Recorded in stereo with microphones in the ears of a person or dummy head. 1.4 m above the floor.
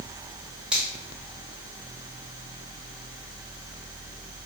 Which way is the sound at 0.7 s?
5° right (ahead or behind).